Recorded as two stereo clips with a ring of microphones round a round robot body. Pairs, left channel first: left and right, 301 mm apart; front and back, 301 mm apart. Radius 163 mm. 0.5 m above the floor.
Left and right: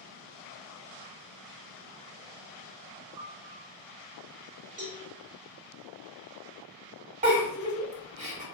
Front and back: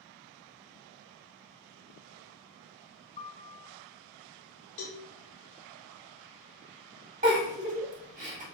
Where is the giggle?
135° right, 1.4 m.